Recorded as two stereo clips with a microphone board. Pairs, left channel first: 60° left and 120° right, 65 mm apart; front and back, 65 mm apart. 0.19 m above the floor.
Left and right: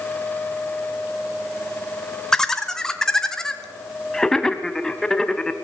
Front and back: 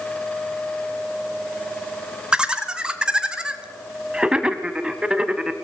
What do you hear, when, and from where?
2.3 s laughter: 125° left, 1.2 m